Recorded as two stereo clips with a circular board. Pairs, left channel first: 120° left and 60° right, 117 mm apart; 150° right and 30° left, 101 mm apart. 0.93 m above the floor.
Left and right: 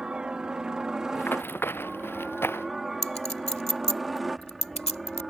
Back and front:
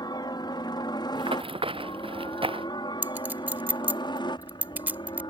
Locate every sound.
0.0 s a helicopter: 140° right; by 5.3 s 150° right
1.1 s running footsteps: 50° left
3.0 s a clink: 100° left